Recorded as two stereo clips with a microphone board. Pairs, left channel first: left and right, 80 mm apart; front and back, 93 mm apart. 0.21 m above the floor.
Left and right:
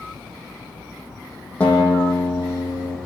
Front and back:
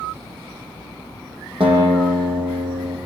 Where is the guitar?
165° left, 7 m.